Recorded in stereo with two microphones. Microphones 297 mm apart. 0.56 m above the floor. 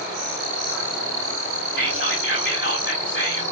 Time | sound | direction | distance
1.8 | whispering | 40° left (ahead or behind) | 2.0 m